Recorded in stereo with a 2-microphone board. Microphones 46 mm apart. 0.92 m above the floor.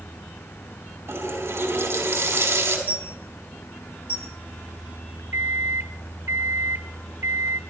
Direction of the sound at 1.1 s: 60° right (ahead or behind).